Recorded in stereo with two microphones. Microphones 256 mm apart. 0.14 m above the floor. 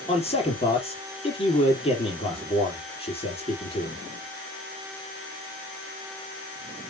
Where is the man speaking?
25° left (ahead or behind), 4 m.